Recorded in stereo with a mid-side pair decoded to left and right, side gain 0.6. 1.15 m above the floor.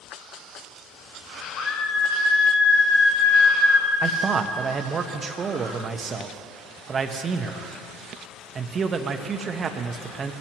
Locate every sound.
1.6 s a scream: 65° left, 4 m; by 3.9 s 75° left, 5.5 m
4.0 s a man speaking: 35° right, 1.1 m